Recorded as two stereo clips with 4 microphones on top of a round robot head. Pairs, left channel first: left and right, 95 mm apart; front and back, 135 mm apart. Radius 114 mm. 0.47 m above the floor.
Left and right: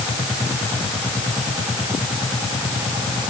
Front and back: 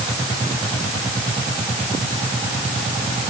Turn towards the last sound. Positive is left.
No sound to turn to.